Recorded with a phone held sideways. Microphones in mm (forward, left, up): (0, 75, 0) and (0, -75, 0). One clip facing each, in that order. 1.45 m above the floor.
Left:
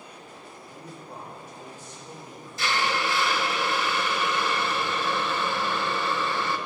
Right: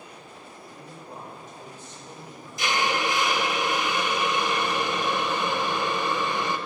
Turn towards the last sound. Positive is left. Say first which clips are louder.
# right 1 dB
turn(degrees=-15)  # may be behind; listen again after turning